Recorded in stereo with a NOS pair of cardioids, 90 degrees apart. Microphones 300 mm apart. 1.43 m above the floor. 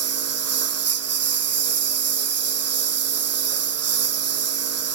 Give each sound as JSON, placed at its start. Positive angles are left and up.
{"t": 0.0, "sound": "a lawn mower", "azimuth_deg": -50}